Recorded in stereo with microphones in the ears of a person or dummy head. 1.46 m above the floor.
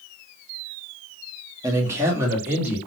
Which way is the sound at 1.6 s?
20° right (ahead or behind).